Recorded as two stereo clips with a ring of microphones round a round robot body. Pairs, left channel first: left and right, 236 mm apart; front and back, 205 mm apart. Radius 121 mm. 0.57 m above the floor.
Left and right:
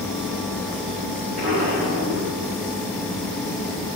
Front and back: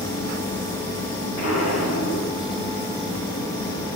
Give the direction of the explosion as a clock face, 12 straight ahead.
1 o'clock.